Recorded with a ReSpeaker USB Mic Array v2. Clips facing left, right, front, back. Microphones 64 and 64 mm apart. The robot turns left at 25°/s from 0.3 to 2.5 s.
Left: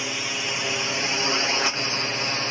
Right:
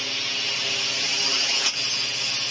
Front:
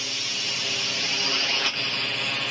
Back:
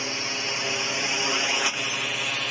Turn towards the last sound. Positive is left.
turn(degrees=95)